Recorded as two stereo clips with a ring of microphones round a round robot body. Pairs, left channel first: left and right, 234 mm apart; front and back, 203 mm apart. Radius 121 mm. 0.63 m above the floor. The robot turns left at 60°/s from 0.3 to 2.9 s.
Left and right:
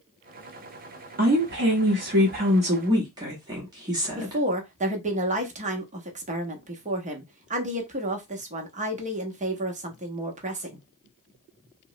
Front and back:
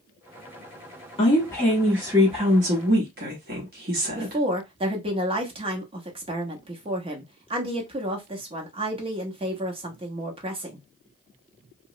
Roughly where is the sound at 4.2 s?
Behind right.